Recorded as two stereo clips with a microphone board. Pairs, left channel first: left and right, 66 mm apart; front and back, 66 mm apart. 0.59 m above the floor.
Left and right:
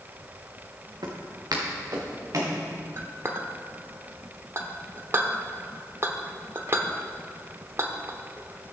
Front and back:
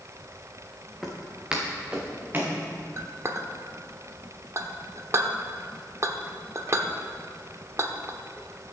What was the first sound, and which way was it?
Footsteps, 90° right.